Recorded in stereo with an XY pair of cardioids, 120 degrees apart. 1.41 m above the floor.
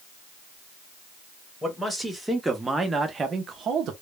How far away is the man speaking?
About 1.3 m.